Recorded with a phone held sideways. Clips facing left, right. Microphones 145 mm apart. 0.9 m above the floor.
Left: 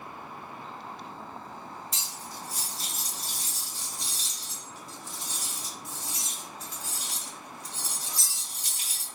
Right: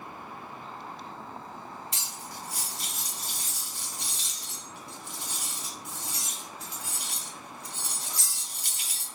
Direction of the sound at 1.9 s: 80° right.